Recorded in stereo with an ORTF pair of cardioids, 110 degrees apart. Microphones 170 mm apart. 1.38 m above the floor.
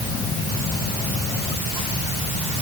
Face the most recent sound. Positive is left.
No sound to turn to.